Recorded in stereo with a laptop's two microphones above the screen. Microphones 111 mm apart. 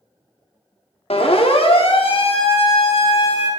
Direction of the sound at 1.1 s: 65° left (ahead or behind).